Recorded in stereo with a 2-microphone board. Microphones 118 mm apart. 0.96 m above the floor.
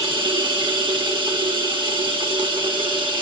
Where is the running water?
40° right (ahead or behind), 1.4 m.